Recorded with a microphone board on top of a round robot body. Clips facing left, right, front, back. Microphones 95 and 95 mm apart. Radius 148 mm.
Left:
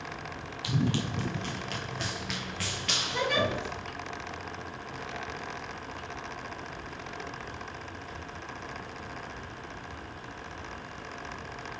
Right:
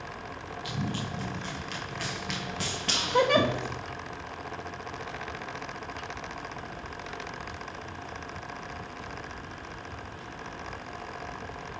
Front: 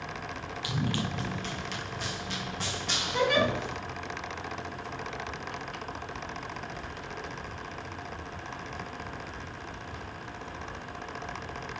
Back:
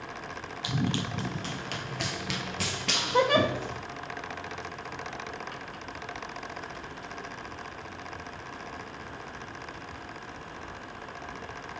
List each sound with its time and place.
0.6 s running footsteps: 110° left, 1.2 m; by 3.8 s 125° right, 1.2 m
3.1 s a giggle: 130° right, 1.0 m